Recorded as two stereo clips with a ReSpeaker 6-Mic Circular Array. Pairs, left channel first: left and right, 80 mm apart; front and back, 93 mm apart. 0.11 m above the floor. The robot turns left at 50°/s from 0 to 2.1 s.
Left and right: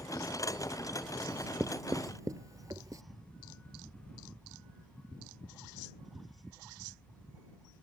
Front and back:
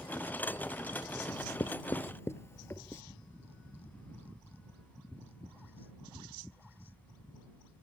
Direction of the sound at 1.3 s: 15° right.